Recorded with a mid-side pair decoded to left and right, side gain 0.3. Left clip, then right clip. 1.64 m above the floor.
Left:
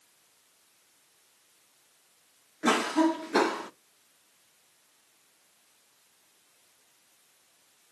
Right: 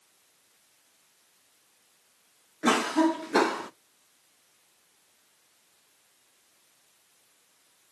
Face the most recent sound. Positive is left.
turn(degrees=-20)